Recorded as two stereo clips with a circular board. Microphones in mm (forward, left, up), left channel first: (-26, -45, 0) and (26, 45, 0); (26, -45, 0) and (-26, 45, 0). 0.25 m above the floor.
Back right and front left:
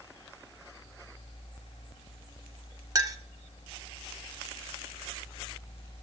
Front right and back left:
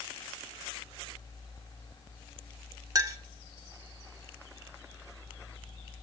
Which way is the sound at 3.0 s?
90° left.